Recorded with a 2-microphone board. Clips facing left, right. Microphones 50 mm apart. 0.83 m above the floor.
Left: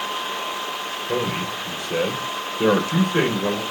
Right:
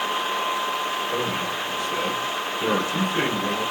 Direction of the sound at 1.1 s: 55° left (ahead or behind).